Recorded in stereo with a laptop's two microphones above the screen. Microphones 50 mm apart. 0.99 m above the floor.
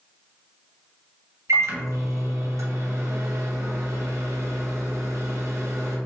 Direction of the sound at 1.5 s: 75° right (ahead or behind).